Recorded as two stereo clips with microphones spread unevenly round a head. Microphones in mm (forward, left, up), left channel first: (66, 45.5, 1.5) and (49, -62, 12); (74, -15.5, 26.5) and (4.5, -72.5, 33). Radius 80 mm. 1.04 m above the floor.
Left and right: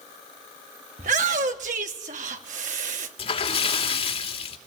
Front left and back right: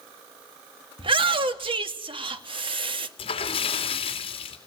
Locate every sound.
1.0 s a shout: 120° right, 2 m
3.2 s a splash: 55° left, 3 m